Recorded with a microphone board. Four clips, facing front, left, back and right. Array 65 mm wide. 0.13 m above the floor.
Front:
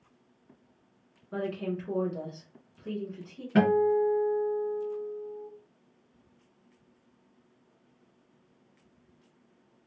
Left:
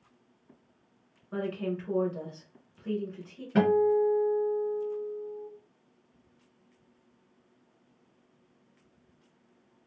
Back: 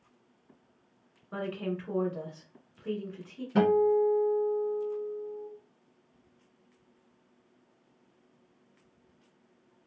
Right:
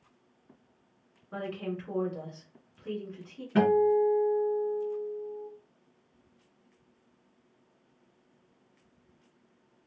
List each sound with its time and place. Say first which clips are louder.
1.3 s a woman speaking: left 3 dB, front 1 dB; straight behind, 1.6 m
3.5 s a guitar: even, even; 15° left, 1.5 m